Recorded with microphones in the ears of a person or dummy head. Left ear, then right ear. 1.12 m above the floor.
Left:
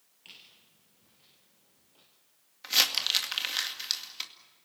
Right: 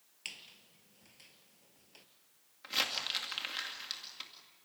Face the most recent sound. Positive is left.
turn(degrees=25)  # may be behind; listen again after turning